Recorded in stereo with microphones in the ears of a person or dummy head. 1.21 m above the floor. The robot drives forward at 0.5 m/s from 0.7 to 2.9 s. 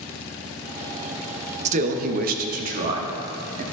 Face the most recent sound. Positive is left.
turn(degrees=-40)  # may be behind; listen again after turning